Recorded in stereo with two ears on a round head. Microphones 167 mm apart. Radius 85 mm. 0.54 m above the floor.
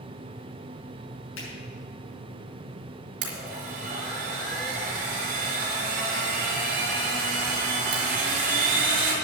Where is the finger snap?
80° left, 6.5 m.